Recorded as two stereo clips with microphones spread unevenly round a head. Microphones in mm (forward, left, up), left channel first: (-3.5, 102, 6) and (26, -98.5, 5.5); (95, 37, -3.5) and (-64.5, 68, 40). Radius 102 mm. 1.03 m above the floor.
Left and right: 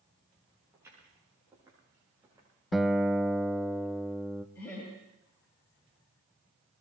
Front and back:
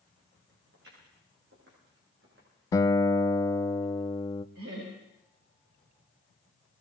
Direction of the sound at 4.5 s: Straight behind.